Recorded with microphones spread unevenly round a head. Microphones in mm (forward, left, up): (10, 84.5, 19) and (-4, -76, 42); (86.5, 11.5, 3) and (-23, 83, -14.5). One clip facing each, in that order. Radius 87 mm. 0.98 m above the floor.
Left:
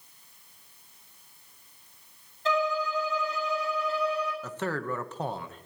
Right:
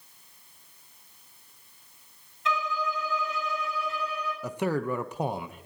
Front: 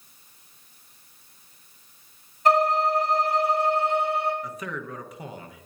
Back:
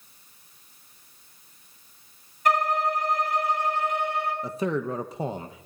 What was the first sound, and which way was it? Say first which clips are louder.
A violin: left 3 dB, front 3 dB; 25° left.